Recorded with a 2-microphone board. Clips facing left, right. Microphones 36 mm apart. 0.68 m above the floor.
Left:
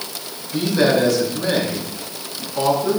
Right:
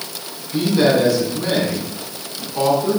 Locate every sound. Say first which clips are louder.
0.5 s a man speaking: right 1 dB; 5° right (ahead or behind), 5.5 m